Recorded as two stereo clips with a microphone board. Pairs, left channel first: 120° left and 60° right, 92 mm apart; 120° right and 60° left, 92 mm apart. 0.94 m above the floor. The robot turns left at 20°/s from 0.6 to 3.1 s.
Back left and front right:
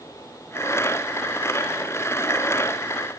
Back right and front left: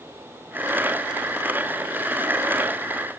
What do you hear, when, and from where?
Only background noise.